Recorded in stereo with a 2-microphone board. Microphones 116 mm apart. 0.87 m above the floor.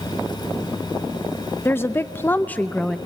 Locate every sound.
1.6 s a woman speaking: 20° left (ahead or behind), 0.6 m; by 3.0 s 5° left (ahead or behind), 0.7 m